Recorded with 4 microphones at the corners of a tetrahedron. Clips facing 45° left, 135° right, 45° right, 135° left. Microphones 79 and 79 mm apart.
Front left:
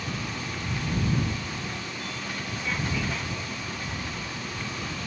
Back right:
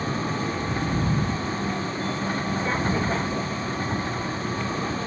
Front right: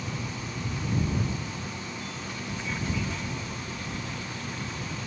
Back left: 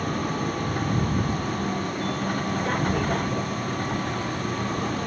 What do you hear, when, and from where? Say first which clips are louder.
0.0 s a vehicle: back right 7 dB, back left 9 dB; 170° left